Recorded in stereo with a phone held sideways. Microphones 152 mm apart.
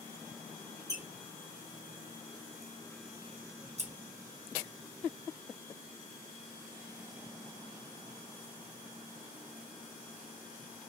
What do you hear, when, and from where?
0.9 s a squeak: 20° right (ahead or behind), 0.8 m
3.8 s scissors: 45° right (ahead or behind), 0.6 m